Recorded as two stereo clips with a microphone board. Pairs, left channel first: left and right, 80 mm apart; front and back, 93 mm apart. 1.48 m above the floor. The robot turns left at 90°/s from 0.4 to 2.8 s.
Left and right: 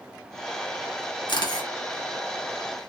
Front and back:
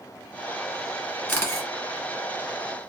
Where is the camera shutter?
80° left, 1.3 m; by 1.7 s 45° left, 1.3 m.